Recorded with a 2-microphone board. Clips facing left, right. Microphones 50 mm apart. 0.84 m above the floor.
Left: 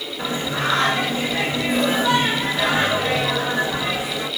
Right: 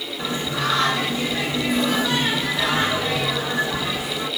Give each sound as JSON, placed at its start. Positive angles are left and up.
{"t": 0.2, "sound": "singing", "side_deg": 30, "distance_m": 1.8}